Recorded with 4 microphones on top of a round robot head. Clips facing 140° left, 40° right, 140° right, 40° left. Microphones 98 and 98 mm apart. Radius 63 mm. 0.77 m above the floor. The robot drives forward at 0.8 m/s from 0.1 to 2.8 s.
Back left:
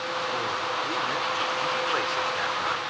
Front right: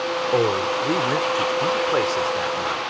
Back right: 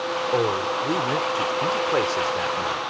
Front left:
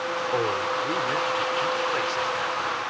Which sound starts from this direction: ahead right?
A man speaking, at 0.3 s.